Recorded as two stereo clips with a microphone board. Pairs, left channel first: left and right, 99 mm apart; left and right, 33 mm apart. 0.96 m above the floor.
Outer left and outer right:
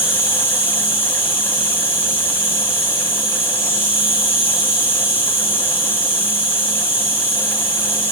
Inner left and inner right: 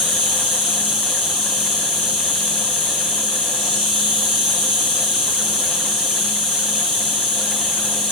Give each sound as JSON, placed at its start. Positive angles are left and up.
{"t": 0.0, "sound": "an insect", "side_deg": -15, "distance_m": 1.6}